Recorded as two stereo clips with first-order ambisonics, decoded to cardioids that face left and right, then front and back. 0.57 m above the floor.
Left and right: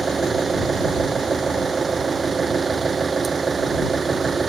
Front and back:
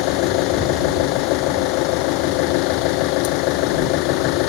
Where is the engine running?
15° right.